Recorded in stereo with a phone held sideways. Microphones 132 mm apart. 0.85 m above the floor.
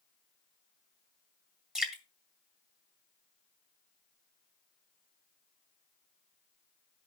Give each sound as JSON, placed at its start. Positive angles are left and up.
{"t": 1.8, "sound": "dripping", "side_deg": -5, "distance_m": 1.9}